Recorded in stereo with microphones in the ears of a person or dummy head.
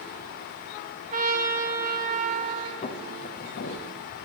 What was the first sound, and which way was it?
A trumpet, 40° right (ahead or behind).